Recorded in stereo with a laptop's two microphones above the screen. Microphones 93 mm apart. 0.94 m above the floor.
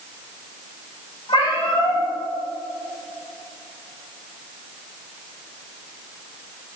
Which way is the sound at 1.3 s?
65° left (ahead or behind).